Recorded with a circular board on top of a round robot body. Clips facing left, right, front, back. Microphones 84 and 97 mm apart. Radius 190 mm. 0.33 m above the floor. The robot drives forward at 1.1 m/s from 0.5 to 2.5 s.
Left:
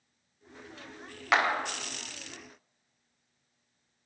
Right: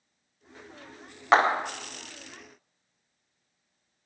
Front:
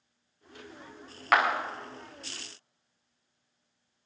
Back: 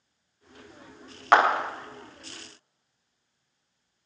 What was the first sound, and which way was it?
A clap, 130° right.